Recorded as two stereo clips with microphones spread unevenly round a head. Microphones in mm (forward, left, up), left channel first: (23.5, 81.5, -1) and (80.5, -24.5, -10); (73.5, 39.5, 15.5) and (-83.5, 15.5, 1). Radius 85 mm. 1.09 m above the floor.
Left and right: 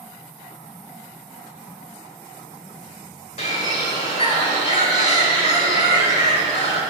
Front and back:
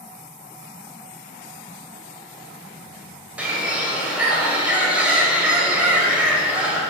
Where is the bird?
105° left, 1.4 m.